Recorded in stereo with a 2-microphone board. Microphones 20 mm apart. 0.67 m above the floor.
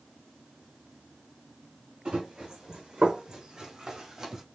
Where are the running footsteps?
50° right (ahead or behind), 2.5 m; by 4.4 s 25° right (ahead or behind), 1.9 m.